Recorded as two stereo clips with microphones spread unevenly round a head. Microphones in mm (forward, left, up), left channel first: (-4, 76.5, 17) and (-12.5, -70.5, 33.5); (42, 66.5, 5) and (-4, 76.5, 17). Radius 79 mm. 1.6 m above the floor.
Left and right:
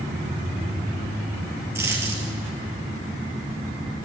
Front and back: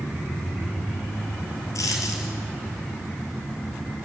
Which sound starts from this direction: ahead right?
A dropped coin, at 1.8 s.